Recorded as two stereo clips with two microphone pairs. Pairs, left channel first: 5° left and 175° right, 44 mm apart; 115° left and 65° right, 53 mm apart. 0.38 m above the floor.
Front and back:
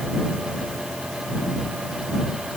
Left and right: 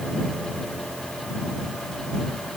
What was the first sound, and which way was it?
Only background noise.